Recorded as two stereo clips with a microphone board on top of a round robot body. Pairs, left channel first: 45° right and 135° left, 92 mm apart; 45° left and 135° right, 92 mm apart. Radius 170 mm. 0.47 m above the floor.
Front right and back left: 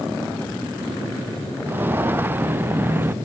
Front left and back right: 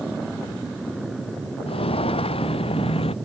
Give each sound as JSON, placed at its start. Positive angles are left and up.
{"t": 1.7, "sound": "footsteps", "azimuth_deg": 65}